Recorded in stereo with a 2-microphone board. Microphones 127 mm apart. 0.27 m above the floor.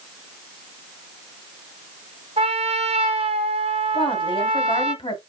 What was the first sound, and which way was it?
A trumpet, 60° right (ahead or behind).